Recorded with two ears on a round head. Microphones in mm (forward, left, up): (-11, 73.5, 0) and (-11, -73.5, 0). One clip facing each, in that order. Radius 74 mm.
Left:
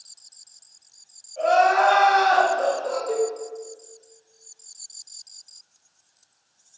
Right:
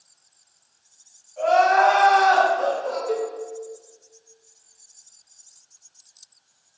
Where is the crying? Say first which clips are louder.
Right 1 dB; 45° left (ahead or behind), 1.8 m.